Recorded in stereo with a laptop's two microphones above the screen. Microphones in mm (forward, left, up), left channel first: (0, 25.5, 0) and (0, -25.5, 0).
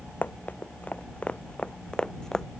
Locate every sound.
0.2 s running footsteps: 40° left (ahead or behind); by 2.5 s 10° left (ahead or behind)